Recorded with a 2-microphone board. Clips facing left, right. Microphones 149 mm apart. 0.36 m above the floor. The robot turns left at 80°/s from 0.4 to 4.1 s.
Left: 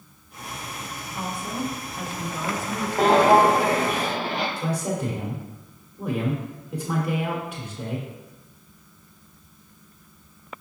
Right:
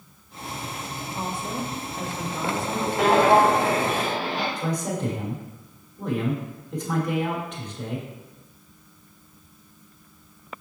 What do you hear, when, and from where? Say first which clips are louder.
1.1 s a woman speaking: even; 25° right (ahead or behind), 0.8 m; by 2.9 s 10° left (ahead or behind), 0.8 m
3.0 s footsteps: left 1 dB; 45° left (ahead or behind), 0.9 m; by 4.5 s 55° left (ahead or behind), 2 m
4.6 s a man speaking: even; 10° left (ahead or behind), 1.0 m